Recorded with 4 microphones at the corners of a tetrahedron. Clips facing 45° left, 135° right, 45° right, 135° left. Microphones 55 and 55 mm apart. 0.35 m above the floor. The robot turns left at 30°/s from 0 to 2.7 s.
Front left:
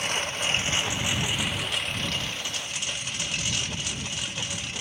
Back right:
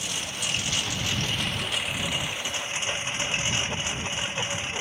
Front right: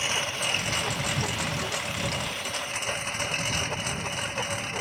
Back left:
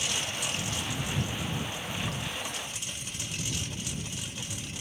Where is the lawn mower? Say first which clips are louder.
Front left 4 dB, front right 5 dB; 5° left; by 4.8 s 75° right.